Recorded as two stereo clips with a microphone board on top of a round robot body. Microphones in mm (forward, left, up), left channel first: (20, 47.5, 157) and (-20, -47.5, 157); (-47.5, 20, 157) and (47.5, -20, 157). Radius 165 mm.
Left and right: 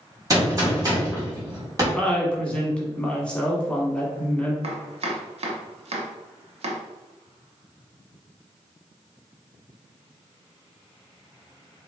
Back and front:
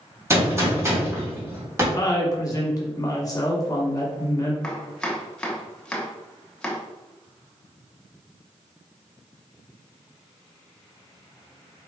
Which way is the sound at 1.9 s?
140° left.